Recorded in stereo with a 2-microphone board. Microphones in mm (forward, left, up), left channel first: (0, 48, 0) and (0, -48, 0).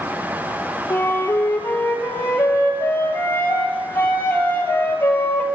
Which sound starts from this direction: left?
A flute, at 0.9 s.